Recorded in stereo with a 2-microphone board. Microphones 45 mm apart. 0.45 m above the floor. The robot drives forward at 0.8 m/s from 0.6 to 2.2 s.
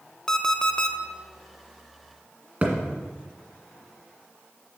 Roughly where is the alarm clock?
Centre.